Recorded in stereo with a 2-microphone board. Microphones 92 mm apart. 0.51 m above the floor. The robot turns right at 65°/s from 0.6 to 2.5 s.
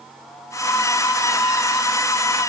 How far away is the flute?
No flute in this recording.